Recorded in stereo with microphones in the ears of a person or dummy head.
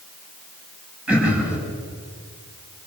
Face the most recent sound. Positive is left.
turn(degrees=-5)  # may be behind; listen again after turning